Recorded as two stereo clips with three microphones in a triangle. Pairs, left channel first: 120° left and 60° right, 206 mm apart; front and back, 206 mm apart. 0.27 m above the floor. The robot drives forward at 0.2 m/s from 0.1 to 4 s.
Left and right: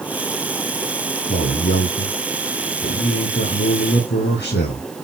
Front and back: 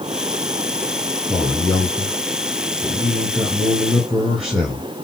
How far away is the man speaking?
About 4.5 m.